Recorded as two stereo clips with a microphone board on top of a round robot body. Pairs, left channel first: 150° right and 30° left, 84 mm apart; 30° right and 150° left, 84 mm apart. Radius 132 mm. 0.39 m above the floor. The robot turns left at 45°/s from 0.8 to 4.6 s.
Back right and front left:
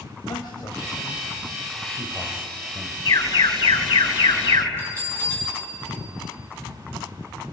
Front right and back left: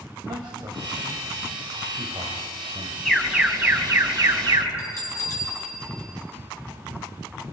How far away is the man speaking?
About 3 m.